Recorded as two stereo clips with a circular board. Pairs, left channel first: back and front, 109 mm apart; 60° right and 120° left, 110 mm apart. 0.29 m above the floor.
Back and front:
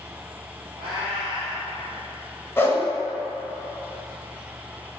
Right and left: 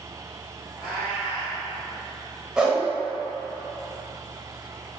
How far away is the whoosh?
About 1.0 m.